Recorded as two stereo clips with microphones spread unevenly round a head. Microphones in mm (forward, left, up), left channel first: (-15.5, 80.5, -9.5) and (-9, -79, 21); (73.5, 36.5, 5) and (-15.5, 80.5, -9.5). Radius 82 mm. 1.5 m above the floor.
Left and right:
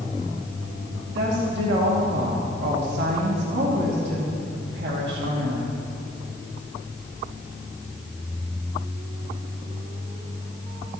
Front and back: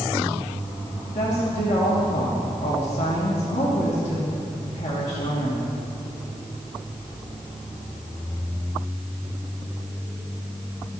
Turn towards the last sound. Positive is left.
turn(degrees=-60)